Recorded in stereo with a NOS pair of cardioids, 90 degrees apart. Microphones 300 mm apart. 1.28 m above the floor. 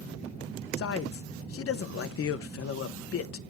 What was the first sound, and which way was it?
A man speaking, 50° left.